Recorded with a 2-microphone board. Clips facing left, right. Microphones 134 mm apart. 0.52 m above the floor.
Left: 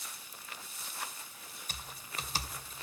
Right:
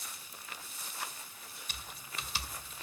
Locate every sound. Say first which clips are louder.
1.7 s typing on a keyboard: left 2 dB; 45° left (ahead or behind), 1.9 m